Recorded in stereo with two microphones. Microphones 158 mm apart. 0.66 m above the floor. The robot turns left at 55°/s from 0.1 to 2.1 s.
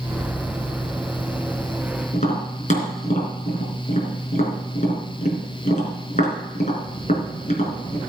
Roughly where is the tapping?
Left.